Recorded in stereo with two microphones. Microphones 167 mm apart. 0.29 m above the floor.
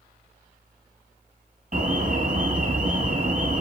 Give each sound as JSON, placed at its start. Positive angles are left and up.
{"t": 1.7, "sound": "an alarm", "side_deg": -55, "distance_m": 2.5}